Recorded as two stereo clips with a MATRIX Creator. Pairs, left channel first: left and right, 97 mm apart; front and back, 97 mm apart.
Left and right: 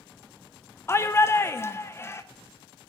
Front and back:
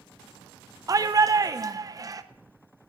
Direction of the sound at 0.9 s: 145° left.